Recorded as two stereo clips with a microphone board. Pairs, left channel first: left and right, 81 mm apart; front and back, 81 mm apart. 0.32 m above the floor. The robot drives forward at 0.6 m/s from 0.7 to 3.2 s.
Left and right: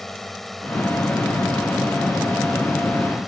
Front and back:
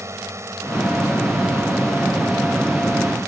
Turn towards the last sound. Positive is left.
turn(degrees=-175)